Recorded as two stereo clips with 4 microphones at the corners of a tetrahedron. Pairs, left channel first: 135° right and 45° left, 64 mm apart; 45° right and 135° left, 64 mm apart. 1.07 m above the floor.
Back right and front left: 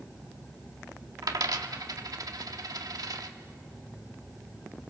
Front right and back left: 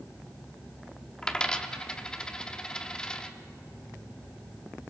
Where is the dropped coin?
30° left, 1.1 m.